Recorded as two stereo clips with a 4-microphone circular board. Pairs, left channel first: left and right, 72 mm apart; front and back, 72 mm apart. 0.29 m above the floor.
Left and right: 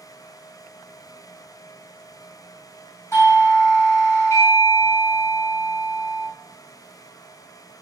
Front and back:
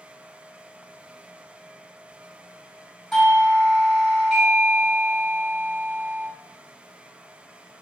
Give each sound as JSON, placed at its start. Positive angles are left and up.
{"t": 3.1, "sound": "a doorbell", "azimuth_deg": 90, "distance_m": 1.6}